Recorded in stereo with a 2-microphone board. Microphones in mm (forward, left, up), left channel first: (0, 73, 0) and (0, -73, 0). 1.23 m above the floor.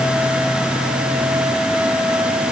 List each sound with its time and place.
Only background noise.